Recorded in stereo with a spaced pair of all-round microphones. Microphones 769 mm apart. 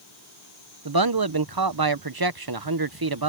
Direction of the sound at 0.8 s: 30° right (ahead or behind).